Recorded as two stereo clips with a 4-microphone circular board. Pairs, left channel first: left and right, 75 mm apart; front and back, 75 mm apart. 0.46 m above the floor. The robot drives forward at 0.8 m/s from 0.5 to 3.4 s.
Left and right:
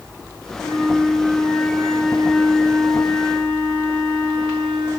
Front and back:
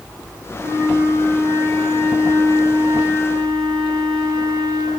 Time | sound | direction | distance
0.6 | a flute | 175° left | 7 m